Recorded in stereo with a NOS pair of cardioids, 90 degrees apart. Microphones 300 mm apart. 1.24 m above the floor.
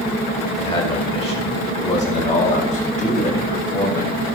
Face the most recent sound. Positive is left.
turn(degrees=30)